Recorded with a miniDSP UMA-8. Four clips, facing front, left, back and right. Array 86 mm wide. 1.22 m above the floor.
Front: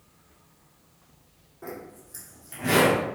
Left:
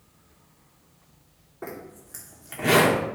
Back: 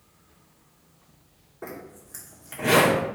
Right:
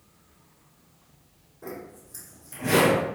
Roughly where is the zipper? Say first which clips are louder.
Left 1 dB, even; behind left.